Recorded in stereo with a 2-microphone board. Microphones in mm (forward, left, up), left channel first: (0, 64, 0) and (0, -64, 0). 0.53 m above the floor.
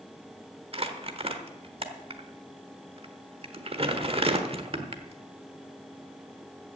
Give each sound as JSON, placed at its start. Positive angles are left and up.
{"t": 0.7, "sound": "crumpling", "side_deg": -50, "distance_m": 1.2}